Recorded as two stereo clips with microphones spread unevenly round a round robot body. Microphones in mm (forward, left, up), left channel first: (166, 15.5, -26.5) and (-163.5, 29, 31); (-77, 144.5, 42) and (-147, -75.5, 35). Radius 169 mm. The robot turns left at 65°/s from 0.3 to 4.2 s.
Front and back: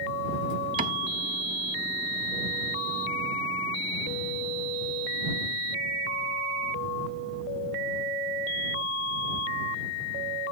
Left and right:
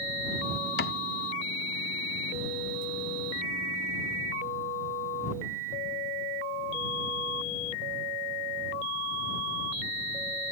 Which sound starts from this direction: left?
A cupboard door, at 0.8 s.